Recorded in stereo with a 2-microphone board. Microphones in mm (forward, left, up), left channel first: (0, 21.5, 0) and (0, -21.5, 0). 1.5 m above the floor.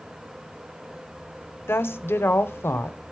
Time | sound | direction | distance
1.7 | a woman speaking | 70° left (ahead or behind) | 0.7 m